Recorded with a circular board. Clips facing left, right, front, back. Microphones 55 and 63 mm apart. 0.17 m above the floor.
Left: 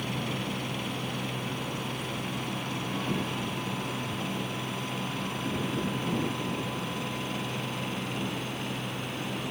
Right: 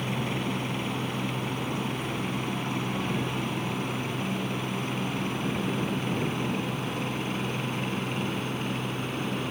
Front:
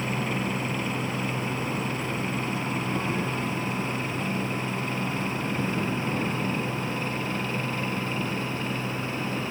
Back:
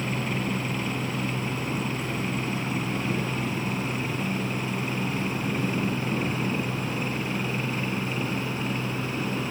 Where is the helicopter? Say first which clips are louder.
Right 3 dB, even; 90° right; by 9.5 s 115° right.